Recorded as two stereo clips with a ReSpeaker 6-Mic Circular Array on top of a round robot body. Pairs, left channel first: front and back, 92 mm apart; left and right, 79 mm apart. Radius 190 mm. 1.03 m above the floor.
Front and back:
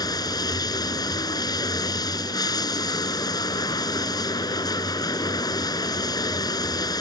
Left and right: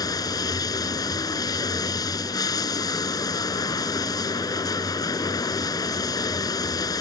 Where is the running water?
45° left.